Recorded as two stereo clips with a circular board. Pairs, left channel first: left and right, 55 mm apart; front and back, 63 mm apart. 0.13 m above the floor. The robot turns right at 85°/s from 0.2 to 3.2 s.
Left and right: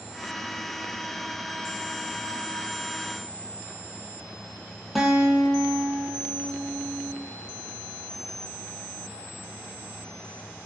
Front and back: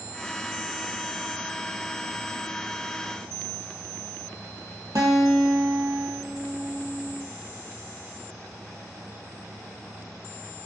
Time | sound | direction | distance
5.0 | a guitar | straight behind | 0.5 m